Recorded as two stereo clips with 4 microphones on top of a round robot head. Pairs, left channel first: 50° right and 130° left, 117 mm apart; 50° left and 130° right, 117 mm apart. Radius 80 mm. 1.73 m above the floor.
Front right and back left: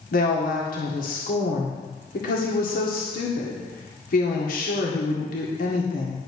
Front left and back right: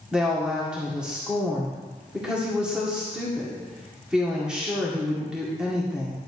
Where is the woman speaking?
45° right, 1.8 m.